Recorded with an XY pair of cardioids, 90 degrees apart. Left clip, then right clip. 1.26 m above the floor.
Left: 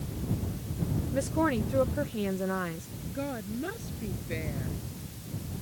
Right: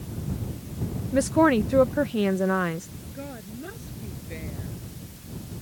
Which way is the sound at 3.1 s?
30° left.